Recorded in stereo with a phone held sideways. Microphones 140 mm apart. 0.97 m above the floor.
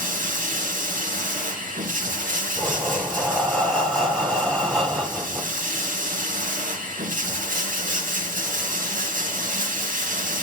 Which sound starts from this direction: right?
Running water, at 0.0 s.